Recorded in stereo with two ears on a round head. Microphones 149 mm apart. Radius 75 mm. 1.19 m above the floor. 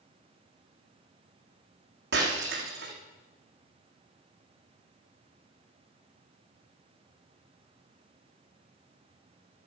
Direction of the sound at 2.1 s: 70° right (ahead or behind).